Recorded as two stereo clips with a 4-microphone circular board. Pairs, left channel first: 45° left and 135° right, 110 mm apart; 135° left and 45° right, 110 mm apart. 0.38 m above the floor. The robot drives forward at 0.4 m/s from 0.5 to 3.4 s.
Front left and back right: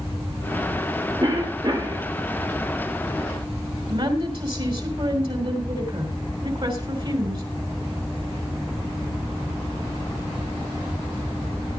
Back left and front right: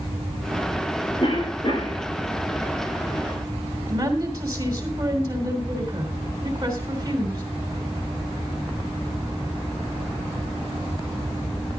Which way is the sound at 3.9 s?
100° right.